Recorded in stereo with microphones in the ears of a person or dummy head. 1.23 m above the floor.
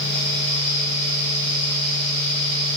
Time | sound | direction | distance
0.0 | a fan | 15° left (ahead or behind) | 0.9 m